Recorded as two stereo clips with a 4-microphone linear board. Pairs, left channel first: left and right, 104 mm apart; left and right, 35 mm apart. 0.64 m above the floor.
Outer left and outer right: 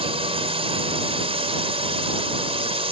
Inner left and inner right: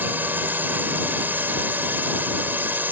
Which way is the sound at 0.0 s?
65° right (ahead or behind).